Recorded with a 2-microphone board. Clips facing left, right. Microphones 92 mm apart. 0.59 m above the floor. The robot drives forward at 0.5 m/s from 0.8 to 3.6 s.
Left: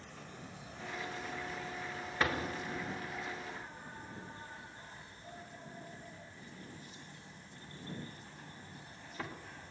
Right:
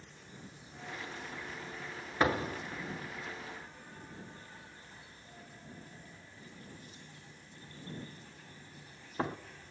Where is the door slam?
25° right (ahead or behind), 1.4 m; by 9.4 s 40° right (ahead or behind), 1.0 m.